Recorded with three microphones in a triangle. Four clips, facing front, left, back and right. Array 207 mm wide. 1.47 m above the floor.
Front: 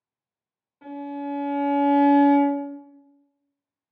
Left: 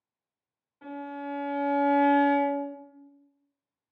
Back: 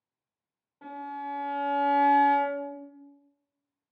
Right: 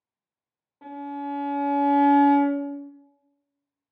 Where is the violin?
100° right, 1.3 m.